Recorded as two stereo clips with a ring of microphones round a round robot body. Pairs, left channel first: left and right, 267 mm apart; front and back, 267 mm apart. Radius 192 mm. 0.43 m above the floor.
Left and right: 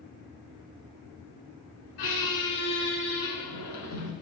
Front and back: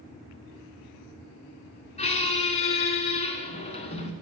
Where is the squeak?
70° left, 1.1 m.